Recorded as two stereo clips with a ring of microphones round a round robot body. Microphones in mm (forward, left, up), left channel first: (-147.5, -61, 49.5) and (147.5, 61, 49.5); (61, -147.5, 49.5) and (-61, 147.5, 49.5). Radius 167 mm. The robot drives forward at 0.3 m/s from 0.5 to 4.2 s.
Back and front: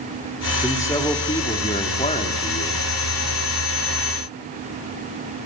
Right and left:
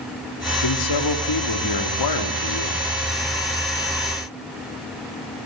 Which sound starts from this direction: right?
A man speaking, at 0.6 s.